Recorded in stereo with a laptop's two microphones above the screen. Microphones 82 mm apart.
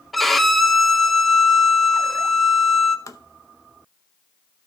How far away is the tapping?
About 0.6 m.